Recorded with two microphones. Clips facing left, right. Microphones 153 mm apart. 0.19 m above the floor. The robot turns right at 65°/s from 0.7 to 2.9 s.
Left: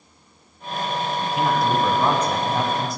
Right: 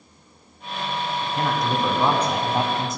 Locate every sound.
1.2 s a man speaking: 15° left (ahead or behind), 1.0 m; by 3.0 s 20° right (ahead or behind), 1.0 m